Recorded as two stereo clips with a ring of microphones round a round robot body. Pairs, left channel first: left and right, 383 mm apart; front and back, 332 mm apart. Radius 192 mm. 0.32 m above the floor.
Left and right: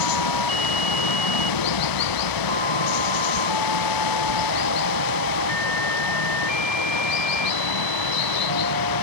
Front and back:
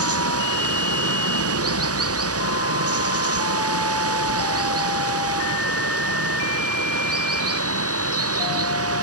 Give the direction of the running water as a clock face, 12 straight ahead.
8 o'clock.